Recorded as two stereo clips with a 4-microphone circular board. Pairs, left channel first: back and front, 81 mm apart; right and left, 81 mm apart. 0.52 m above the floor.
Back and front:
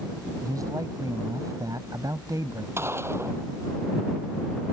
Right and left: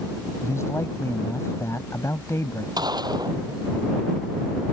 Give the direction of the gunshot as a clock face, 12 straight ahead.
10 o'clock.